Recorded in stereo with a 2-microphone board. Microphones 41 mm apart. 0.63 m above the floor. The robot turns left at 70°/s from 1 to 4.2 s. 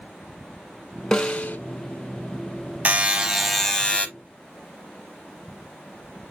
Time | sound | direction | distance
1.1 | a snare drum | 165° left | 0.9 m
2.9 | a buzzer | 135° right | 0.7 m